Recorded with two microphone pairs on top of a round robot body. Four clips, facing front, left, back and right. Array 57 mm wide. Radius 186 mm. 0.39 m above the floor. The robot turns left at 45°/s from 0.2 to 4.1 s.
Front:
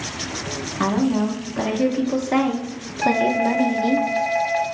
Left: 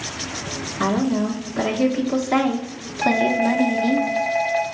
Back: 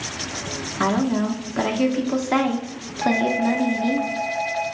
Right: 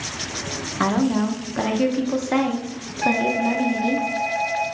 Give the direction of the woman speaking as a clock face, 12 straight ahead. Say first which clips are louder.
Even, front 1 dB; 4 o'clock.